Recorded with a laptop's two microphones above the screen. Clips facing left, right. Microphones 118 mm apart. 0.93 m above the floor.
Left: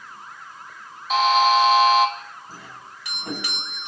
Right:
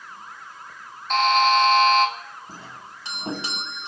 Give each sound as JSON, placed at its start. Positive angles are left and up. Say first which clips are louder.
{"t": 1.1, "sound": "a buzzer", "louder": "left 1 dB", "side_deg": 5, "distance_m": 1.6}
{"t": 2.5, "sound": "a doorbell", "louder": "right 1 dB", "side_deg": -30, "distance_m": 1.9}